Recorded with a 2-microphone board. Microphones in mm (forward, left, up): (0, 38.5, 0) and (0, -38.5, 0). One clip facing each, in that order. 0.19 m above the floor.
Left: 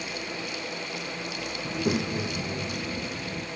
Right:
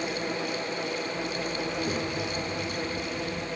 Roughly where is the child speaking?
Left.